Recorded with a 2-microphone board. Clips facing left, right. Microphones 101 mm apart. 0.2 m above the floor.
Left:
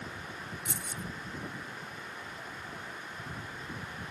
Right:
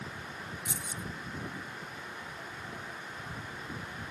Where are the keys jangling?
55° left (ahead or behind).